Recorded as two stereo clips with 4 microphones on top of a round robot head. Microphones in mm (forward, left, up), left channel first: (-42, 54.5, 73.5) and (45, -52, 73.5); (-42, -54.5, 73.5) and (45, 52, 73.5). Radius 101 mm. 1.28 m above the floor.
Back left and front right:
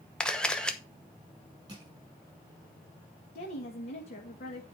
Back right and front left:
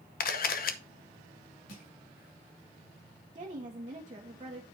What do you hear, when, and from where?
0.2 s a camera shutter: 145° right, 0.9 m
1.7 s crushing: 110° right, 6 m
3.4 s a woman speaking: 105° left, 1.3 m